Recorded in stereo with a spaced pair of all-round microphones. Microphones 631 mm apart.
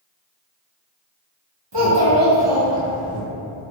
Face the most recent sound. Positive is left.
turn(degrees=-25)  # may be behind; listen again after turning